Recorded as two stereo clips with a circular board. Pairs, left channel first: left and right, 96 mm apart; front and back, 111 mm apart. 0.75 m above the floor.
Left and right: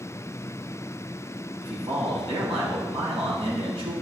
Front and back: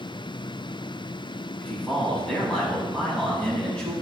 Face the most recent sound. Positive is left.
turn(degrees=-80)